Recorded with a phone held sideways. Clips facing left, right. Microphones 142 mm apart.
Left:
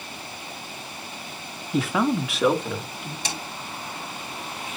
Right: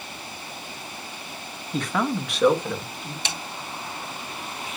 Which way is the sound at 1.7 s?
5° left (ahead or behind).